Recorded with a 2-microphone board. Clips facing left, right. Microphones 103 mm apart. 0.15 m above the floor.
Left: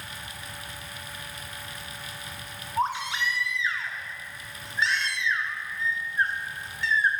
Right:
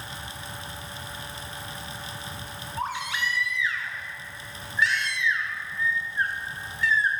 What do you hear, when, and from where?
2.8 s a baby crying: 30° left (ahead or behind), 0.8 m